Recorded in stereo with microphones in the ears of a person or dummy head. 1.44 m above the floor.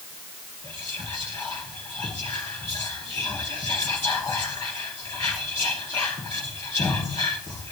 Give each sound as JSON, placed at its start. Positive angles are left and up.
{"t": 0.6, "sound": "whispering", "side_deg": 15, "distance_m": 2.5}